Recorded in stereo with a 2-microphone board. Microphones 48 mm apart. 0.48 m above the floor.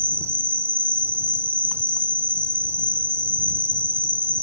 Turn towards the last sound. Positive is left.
turn(degrees=-55)  # may be behind; listen again after turning